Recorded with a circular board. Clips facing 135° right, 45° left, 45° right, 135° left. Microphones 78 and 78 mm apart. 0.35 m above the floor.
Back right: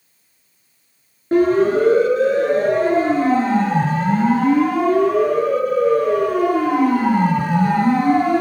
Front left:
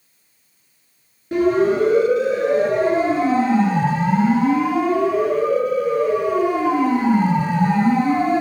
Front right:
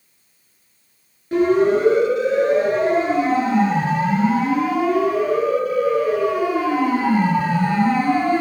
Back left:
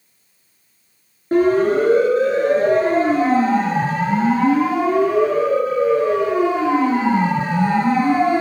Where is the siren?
Straight behind, 8 m; by 8.4 s 155° right, 6 m.